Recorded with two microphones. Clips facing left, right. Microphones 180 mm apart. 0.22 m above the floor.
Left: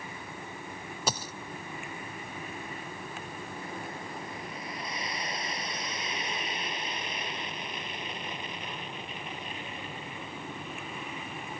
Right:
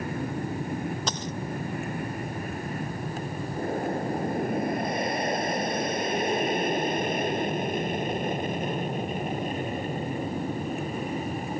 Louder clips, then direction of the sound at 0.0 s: Right 12 dB; 60° right (ahead or behind).